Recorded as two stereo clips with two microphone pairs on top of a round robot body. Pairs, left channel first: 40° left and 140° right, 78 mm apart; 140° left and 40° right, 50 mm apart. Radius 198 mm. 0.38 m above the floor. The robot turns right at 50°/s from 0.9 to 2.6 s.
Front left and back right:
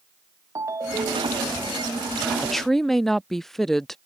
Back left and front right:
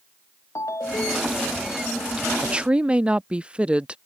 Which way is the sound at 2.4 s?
55° right.